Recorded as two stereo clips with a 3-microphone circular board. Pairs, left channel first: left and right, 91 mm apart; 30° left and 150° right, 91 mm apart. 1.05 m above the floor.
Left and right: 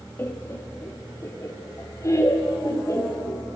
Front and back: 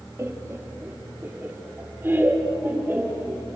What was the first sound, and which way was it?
Laughter, 155° left.